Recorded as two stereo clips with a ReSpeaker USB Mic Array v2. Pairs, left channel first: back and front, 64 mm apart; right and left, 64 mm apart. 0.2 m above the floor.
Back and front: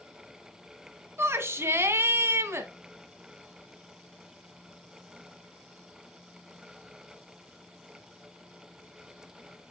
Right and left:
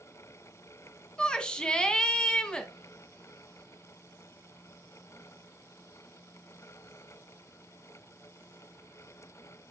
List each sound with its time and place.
1.2 s a shout: 20° right, 1.5 m